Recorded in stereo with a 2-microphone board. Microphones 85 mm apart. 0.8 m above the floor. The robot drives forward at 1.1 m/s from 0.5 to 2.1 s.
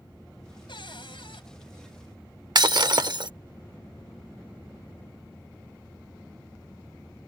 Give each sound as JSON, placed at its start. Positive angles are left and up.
{"t": 0.7, "sound": "a cupboard door", "side_deg": 70}
{"t": 2.5, "sound": "breaking glass", "side_deg": -55}